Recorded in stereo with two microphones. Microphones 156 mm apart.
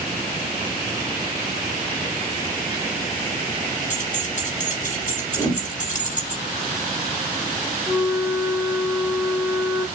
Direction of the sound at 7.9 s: 5° left (ahead or behind).